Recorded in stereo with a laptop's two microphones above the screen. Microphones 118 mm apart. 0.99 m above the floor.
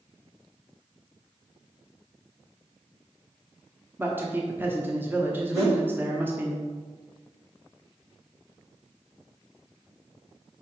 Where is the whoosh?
65° right (ahead or behind), 1.4 m.